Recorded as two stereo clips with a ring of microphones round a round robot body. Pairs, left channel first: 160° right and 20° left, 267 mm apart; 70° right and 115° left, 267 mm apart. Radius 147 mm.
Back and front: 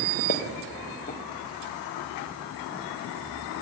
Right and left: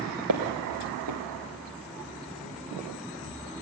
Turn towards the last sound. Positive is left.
turn(degrees=140)